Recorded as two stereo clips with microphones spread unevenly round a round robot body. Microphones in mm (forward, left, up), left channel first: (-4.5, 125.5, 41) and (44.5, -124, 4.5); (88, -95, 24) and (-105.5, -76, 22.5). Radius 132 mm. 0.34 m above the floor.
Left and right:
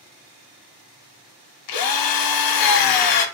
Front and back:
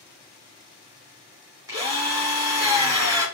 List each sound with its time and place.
1.7 s a drill: 95° left, 0.9 m